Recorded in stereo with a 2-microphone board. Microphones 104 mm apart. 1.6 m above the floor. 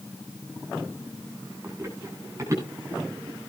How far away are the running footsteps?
About 10 m.